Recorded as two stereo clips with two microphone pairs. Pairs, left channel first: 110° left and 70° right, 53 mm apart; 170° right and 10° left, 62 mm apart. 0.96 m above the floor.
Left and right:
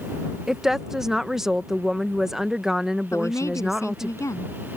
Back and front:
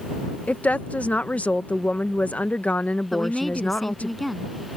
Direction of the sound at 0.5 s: 135° right.